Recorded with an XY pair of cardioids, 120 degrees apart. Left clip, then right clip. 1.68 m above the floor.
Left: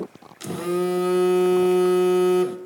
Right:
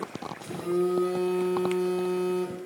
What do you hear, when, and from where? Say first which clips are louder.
0.4 s a phone buzzing: left 3 dB; 70° left, 0.5 m